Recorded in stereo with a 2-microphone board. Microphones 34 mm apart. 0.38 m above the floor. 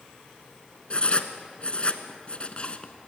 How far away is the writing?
About 1.4 m.